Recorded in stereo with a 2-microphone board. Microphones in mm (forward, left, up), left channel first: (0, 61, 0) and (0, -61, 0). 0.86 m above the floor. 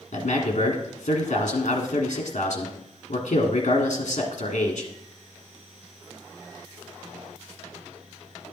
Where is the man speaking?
60° left (ahead or behind), 1.6 m.